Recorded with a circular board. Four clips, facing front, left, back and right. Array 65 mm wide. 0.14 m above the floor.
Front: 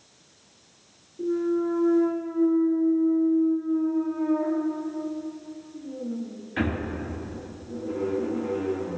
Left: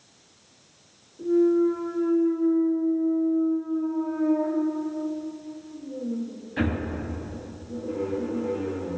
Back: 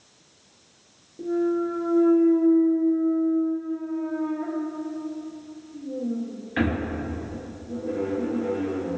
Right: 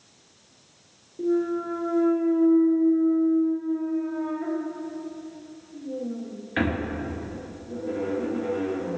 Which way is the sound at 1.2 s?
115° right.